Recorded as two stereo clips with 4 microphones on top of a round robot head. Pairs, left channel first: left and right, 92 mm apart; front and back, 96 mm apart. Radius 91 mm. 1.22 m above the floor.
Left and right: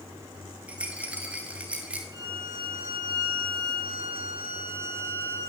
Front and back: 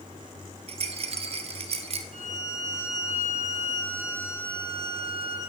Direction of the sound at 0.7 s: 170° right.